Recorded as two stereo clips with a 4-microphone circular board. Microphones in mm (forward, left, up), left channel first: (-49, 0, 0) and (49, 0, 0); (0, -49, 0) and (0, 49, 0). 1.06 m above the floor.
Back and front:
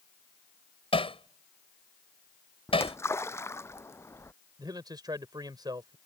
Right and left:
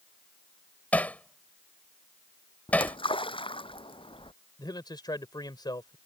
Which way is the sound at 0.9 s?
165° right.